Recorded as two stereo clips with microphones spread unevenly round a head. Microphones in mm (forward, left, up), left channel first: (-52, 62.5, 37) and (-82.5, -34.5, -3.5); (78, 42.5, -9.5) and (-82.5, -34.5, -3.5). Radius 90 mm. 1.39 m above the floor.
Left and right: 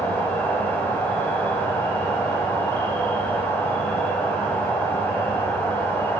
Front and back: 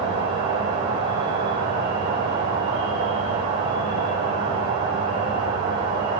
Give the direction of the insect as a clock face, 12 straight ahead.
7 o'clock.